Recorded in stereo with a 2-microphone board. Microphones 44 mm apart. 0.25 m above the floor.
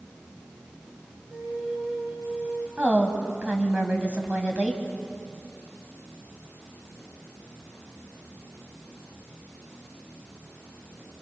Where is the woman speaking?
25° right (ahead or behind), 1.9 m.